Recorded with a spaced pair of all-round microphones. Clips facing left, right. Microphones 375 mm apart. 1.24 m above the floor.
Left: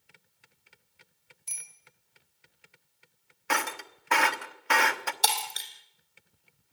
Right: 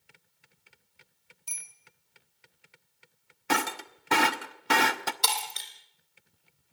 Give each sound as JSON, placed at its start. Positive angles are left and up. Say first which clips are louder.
{"t": 1.5, "sound": "a bicycle bell", "louder": "even", "side_deg": 30, "distance_m": 4.0}
{"t": 3.5, "sound": "breaking glass", "louder": "right 4 dB", "side_deg": -50, "distance_m": 1.0}
{"t": 5.2, "sound": "breaking glass", "louder": "left 2 dB", "side_deg": -5, "distance_m": 3.0}